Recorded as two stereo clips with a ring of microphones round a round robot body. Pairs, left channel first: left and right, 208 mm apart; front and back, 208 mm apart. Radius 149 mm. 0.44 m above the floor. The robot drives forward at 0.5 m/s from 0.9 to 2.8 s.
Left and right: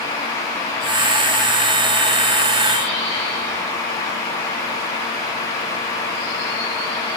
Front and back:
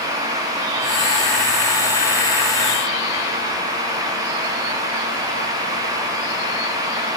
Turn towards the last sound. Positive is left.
No sound to turn to.